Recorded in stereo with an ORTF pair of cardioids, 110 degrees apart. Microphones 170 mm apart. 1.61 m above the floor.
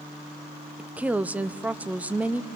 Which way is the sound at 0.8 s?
10° right.